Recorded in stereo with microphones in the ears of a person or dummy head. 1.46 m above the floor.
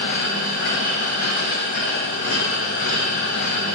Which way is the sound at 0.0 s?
55° left (ahead or behind).